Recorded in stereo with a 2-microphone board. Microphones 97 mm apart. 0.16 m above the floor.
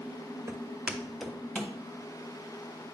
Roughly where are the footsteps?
Right.